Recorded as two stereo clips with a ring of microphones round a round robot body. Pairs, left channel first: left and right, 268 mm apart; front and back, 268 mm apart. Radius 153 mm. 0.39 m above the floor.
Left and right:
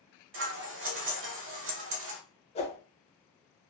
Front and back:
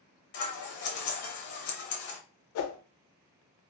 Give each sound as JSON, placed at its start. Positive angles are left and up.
{"t": 0.3, "sound": "scissors", "azimuth_deg": -45, "distance_m": 0.7}
{"t": 2.5, "sound": "a whoosh", "azimuth_deg": 25, "distance_m": 0.5}